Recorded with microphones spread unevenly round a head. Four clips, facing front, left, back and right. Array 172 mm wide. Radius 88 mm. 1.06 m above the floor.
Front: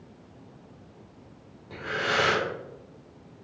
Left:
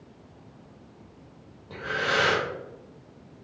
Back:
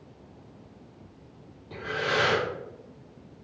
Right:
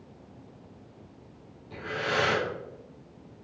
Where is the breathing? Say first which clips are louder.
Left 3 dB, even; 75° left, 2 m.